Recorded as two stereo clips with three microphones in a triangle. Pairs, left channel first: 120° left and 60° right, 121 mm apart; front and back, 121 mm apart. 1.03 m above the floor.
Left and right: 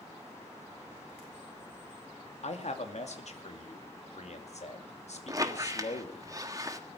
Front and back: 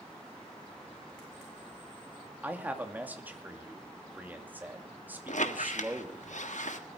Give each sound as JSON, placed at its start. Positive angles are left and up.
{"t": 2.4, "sound": "a man speaking", "azimuth_deg": 105, "distance_m": 2.5}
{"t": 5.3, "sound": "a squeak", "azimuth_deg": 0, "distance_m": 1.5}